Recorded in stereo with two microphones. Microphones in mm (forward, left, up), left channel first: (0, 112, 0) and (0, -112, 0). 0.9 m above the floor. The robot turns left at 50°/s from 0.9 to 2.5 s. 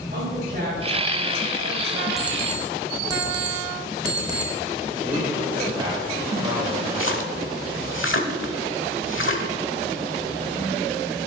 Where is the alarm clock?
Centre (ahead or behind), 1.7 m; by 4.5 s 20° right (ahead or behind), 1.7 m.